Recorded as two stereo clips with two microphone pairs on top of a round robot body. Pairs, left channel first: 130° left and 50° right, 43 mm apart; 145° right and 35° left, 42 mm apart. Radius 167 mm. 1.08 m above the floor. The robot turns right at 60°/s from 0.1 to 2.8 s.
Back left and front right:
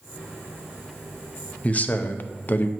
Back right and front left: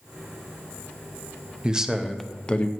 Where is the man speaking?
95° left, 0.8 m; by 2.7 s 160° left, 0.8 m.